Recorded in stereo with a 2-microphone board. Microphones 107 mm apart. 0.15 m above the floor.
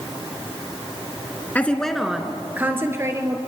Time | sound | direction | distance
1.6 | a woman speaking | 15° left (ahead or behind) | 1.8 m